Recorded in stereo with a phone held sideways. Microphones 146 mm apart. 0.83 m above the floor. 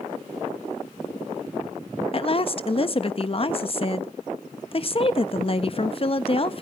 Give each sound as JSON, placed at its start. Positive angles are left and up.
{"t": 2.1, "sound": "a woman speaking", "side_deg": 40, "distance_m": 0.6}